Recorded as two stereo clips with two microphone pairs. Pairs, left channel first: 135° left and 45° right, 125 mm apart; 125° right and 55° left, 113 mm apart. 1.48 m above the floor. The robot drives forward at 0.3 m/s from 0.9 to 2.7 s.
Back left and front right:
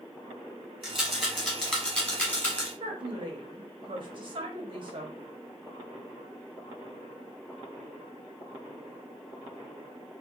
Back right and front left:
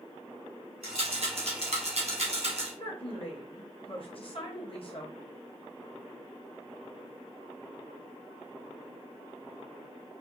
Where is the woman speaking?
90° right, 1.0 m.